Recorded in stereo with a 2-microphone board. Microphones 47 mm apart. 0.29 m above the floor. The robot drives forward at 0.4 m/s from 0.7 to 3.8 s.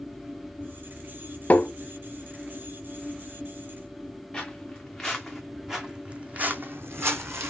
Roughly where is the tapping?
Left.